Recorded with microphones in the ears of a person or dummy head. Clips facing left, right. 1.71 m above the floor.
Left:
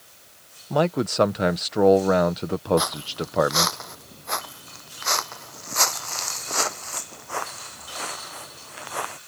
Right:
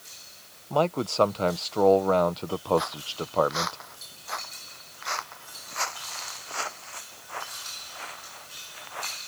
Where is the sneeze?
No sneeze in this recording.